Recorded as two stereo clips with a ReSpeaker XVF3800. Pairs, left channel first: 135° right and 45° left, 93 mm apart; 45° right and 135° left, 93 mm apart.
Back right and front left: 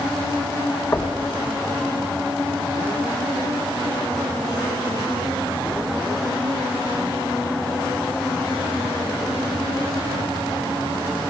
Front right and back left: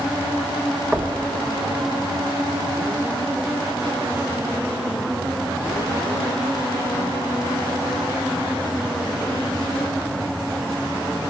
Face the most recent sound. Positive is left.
turn(degrees=-150)